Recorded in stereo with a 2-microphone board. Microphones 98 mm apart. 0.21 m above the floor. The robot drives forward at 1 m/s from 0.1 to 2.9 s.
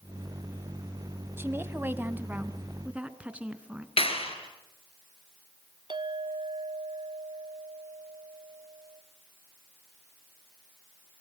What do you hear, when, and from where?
1.4 s a woman speaking: 20° right (ahead or behind), 1.0 m; by 3.9 s 10° right (ahead or behind), 1.9 m
4.0 s a clap: 70° left (ahead or behind), 3.5 m
5.9 s a clink: 50° right (ahead or behind), 0.9 m